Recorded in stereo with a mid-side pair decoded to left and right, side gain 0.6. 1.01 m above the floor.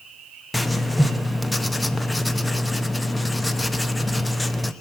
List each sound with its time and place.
0.5 s writing: 10° left, 0.8 m